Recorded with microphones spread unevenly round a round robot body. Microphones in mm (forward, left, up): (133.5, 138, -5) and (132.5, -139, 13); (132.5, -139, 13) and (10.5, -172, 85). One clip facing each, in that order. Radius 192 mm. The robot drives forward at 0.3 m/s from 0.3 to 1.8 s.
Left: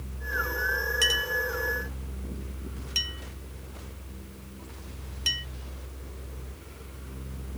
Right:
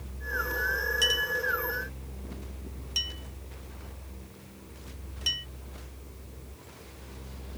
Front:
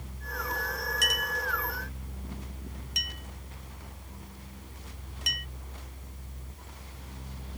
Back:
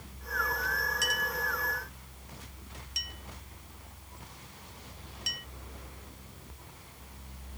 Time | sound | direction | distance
1.0 | a clink | 35° left | ?